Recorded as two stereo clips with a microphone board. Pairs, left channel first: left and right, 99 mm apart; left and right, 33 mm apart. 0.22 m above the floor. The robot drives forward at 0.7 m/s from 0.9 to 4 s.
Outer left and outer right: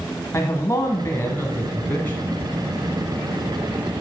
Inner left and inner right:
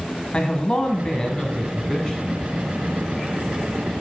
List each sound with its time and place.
0.3 s a man speaking: 30° left (ahead or behind), 1.5 m; by 2.5 s 20° left (ahead or behind), 2 m